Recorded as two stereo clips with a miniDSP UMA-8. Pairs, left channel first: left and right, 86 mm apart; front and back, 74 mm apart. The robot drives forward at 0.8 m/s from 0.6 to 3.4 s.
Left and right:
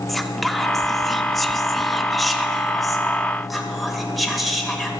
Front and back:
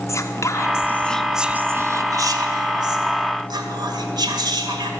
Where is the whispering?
Straight ahead, 0.8 m; by 4.9 s straight behind, 1.8 m.